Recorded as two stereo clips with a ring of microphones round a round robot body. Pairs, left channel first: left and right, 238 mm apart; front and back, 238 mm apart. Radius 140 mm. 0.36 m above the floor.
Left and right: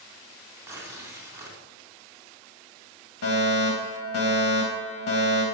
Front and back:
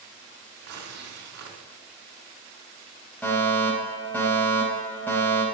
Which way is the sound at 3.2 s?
85° left.